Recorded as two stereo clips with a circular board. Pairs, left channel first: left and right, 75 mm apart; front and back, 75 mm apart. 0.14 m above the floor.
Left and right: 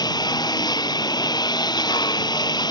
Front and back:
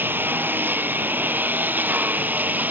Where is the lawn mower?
115° left.